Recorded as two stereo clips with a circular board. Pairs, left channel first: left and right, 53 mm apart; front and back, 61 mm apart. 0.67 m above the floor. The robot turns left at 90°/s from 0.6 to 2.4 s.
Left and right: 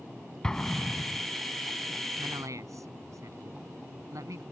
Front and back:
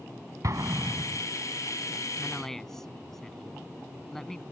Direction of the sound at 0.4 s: 165° left.